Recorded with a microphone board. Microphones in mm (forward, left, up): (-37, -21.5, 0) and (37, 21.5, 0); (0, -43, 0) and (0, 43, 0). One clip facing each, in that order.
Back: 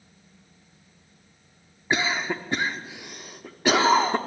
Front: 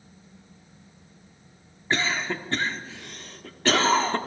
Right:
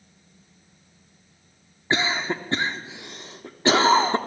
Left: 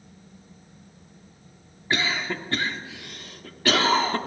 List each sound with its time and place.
1.9 s a cough: 95° right, 0.7 m